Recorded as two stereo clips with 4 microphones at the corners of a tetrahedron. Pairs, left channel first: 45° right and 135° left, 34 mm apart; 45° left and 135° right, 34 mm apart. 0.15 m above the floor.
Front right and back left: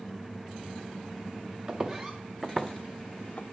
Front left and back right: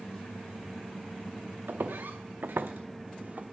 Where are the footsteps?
165° right, 1.2 m; by 3.5 s 85° right, 0.8 m.